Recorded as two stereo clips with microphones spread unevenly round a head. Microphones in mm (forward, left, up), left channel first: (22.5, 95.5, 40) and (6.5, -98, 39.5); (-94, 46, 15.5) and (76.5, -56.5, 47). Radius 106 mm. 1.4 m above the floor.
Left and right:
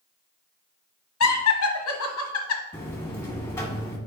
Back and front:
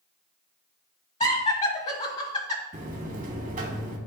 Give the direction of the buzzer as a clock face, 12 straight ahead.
12 o'clock.